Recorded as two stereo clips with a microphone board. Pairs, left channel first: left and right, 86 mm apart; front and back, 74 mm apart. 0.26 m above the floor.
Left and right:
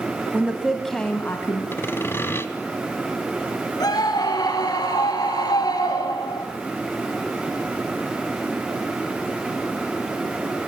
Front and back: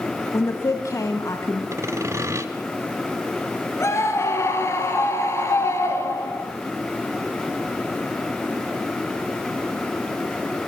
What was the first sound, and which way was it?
A woman speaking, 25° right.